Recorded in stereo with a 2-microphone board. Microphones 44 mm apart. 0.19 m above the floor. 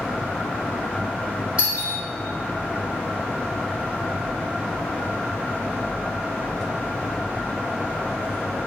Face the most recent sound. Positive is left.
turn(degrees=-25)  # may be behind; listen again after turning